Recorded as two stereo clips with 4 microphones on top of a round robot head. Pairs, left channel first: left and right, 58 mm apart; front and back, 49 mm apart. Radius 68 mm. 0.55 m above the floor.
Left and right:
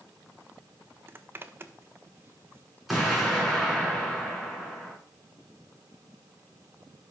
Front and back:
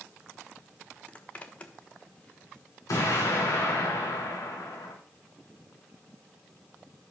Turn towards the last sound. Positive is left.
turn(degrees=0)